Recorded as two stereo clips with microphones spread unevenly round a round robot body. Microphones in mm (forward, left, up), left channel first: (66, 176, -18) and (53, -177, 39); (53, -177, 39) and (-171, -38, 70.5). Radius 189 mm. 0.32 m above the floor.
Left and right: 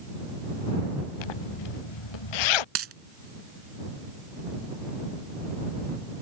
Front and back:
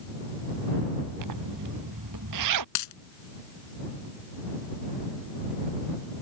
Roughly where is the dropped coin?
Ahead right.